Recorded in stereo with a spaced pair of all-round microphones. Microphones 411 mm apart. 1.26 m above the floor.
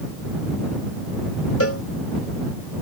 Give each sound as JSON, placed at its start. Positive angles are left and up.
{"t": 1.6, "sound": "a cowbell", "side_deg": 35}